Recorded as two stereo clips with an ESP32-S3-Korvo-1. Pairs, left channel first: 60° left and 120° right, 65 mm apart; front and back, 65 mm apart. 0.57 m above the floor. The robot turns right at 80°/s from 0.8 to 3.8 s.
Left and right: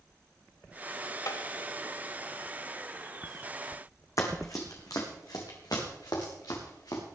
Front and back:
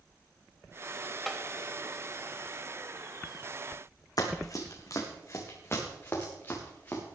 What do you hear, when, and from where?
1.3 s tapping: 85° left, 0.9 m; by 1.4 s 100° left, 0.9 m
4.2 s running footsteps: 25° left, 2.5 m; by 7.0 s 60° left, 5 m